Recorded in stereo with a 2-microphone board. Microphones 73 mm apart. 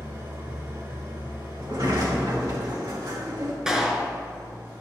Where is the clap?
10° right (ahead or behind), 1.1 m.